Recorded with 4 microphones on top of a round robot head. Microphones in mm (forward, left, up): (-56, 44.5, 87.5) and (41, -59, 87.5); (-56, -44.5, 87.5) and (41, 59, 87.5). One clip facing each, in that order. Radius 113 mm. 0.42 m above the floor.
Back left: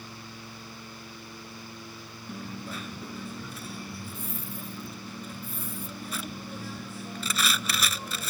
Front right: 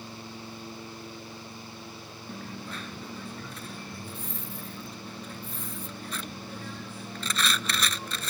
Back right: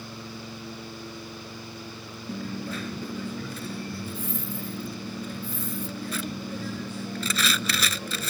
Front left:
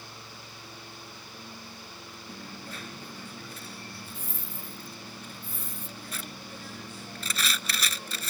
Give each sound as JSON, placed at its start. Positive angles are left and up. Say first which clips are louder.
{"t": 2.3, "sound": "a dropped coin", "louder": "back left 2 dB, back right 11 dB", "azimuth_deg": -145}